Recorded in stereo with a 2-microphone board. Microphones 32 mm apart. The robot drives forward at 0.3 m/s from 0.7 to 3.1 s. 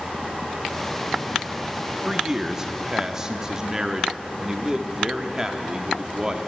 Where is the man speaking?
20° right (ahead or behind), 0.7 m; by 6.5 s 15° right (ahead or behind), 0.8 m.